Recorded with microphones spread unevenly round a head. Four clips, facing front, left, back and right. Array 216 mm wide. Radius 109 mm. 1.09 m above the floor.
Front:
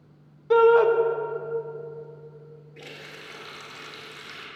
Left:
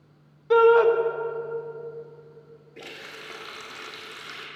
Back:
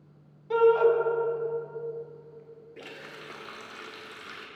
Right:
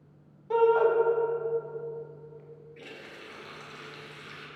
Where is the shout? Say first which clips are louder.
Left 6 dB, front 4 dB; 55° left, 1.0 m.